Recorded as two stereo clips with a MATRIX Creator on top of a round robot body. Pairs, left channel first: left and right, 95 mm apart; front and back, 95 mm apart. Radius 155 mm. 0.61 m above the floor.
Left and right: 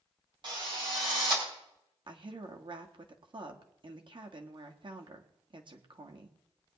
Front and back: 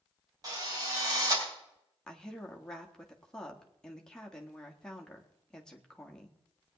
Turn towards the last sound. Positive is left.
turn(degrees=-85)